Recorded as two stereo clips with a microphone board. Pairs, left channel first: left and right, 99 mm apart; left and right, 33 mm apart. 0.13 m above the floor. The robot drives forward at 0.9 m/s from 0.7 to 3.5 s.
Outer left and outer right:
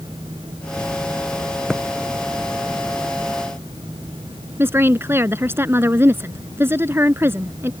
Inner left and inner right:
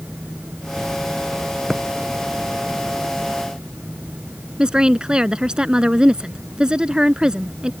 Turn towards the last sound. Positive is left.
turn(degrees=-25)  # may be behind; listen again after turning